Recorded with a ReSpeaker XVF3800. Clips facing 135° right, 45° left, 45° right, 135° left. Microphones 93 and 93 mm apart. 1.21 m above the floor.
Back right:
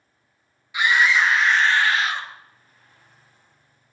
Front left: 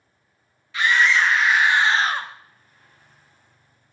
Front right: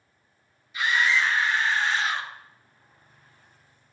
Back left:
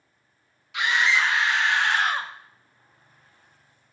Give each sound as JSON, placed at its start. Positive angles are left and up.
{"t": 0.7, "sound": "a scream", "azimuth_deg": 150, "distance_m": 1.3}